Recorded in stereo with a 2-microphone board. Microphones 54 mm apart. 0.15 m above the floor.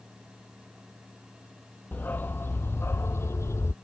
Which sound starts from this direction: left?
A dog barking, at 1.9 s.